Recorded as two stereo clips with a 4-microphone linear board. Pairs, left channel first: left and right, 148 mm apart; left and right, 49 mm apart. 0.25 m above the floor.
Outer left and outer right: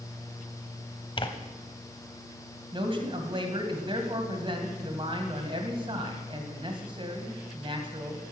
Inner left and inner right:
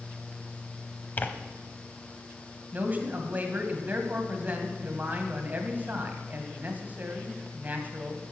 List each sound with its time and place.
1.2 s tearing paper: 35° left (ahead or behind), 0.8 m
2.7 s a man speaking: 35° right (ahead or behind), 1.7 m